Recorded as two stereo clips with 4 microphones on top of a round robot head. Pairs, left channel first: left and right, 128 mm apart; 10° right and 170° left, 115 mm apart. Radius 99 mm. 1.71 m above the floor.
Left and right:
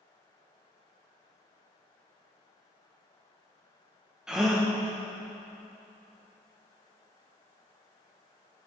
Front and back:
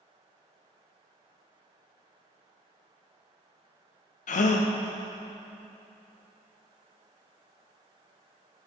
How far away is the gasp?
About 0.7 m.